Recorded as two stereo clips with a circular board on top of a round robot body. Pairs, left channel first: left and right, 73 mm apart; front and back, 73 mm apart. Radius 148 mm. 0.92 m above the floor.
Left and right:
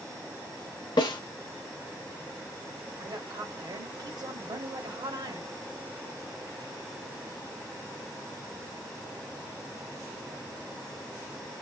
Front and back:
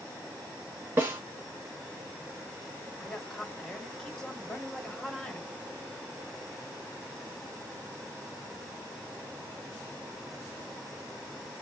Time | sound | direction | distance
1.0 | a snare drum | 120° left | 0.5 m
3.0 | a woman speaking | 80° right | 1.3 m